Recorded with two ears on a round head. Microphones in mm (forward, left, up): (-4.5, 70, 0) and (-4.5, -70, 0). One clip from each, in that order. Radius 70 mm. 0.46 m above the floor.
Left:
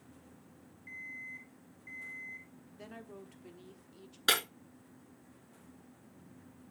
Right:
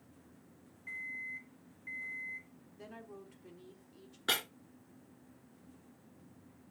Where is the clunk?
I don't hear a clunk.